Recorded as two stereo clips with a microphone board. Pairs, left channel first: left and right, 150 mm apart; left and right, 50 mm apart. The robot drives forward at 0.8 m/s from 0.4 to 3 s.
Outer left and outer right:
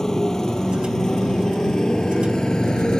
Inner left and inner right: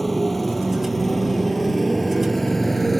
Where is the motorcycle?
5° left (ahead or behind).